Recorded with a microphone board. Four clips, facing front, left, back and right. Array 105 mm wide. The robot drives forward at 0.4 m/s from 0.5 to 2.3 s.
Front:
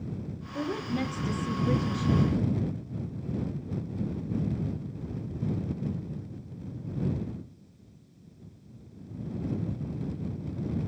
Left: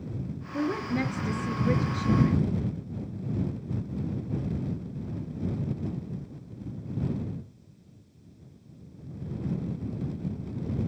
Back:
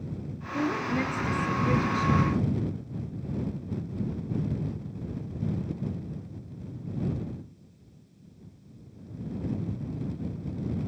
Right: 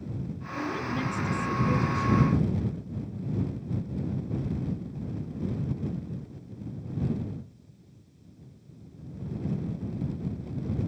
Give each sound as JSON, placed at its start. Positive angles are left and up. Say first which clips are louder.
{"t": 0.5, "sound": "a woman speaking", "louder": "left 3 dB, back 3 dB", "azimuth_deg": 115, "distance_m": 1.3}